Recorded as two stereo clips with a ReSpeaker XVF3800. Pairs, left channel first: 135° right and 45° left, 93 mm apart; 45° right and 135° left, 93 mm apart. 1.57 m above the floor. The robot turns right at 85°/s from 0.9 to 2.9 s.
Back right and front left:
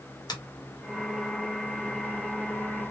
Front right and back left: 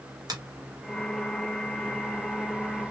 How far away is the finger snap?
About 1.2 m.